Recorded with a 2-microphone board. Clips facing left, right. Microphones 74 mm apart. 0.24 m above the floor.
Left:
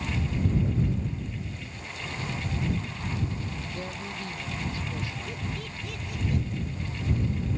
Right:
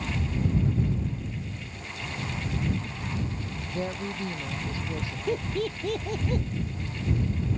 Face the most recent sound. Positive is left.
turn(degrees=-55)  # may be behind; listen again after turning